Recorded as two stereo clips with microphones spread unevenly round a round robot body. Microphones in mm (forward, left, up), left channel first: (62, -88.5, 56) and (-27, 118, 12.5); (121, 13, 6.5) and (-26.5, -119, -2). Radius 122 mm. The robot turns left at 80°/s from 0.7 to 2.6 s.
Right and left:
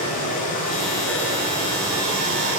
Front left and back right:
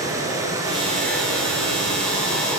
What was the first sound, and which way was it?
Running water, 65° right.